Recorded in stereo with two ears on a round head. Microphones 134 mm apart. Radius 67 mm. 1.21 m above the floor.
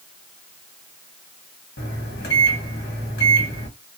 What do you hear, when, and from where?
1.8 s a microwave: 80° left, 1.5 m